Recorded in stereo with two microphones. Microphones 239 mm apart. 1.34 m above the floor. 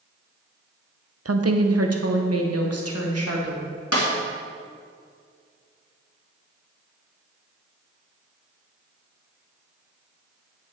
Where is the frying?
I don't hear frying.